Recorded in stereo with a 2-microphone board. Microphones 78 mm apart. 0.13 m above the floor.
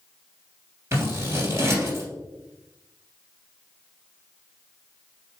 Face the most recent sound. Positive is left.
turn(degrees=-35)  # may be behind; listen again after turning